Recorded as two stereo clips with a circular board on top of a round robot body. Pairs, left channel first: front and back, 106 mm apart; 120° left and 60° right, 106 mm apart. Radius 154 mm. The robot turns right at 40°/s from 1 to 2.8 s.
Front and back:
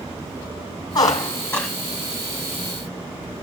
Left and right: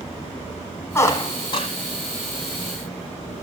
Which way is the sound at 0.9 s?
50° left.